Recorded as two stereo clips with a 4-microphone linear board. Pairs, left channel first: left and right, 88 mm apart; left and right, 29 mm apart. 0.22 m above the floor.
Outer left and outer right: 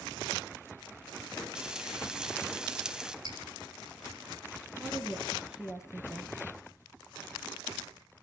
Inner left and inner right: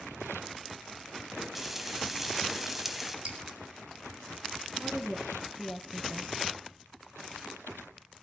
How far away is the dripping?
About 4.5 m.